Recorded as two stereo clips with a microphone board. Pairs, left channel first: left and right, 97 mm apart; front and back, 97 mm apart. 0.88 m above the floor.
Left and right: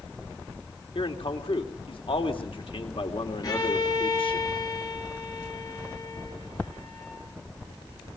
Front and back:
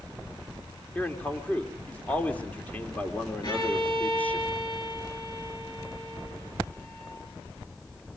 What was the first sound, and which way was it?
A man speaking, 75° left.